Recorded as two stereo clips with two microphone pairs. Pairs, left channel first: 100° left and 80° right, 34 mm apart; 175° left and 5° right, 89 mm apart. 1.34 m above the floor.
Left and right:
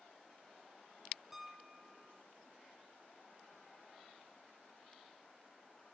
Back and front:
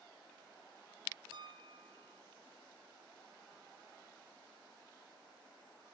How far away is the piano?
About 0.7 m.